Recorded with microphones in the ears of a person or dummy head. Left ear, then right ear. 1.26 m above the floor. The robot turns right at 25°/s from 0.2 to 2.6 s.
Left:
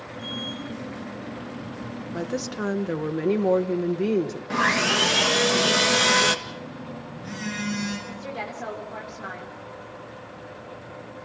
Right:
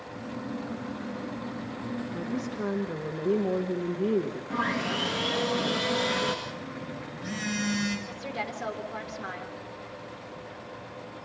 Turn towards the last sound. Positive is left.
turn(degrees=-10)  # may be behind; listen again after turning